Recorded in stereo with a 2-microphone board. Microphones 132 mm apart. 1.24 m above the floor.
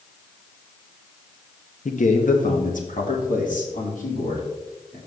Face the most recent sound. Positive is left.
turn(degrees=85)